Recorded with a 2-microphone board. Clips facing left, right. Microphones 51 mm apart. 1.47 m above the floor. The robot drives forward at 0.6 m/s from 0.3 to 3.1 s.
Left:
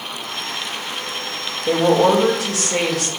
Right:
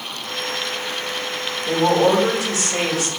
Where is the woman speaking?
85° left, 2 m; by 3.1 s 70° left (ahead or behind), 2 m.